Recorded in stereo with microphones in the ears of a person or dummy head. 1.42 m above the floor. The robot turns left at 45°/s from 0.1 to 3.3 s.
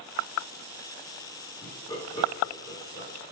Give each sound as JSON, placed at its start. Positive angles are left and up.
{"t": 1.6, "sound": "laughter", "side_deg": 5, "distance_m": 7.5}